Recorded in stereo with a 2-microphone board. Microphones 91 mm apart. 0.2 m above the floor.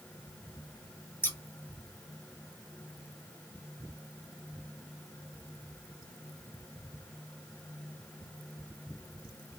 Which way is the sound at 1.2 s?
25° left (ahead or behind).